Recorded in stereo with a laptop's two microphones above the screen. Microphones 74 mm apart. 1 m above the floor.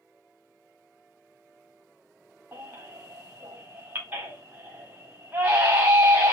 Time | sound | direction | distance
2.5 | a baby crying | 30° right (ahead or behind) | 1.1 m